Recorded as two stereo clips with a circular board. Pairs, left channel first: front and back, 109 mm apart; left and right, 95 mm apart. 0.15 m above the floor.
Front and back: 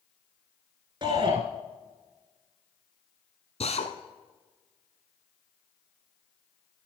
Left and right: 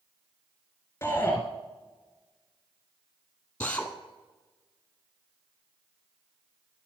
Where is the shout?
150° left, 1.8 m.